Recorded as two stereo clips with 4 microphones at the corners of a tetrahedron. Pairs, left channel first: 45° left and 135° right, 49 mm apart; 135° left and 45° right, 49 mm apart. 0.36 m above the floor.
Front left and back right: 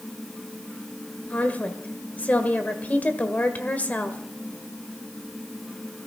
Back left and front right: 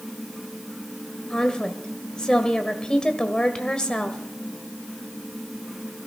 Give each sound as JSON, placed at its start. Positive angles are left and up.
{"t": 1.3, "sound": "a woman speaking", "azimuth_deg": 75, "distance_m": 1.7}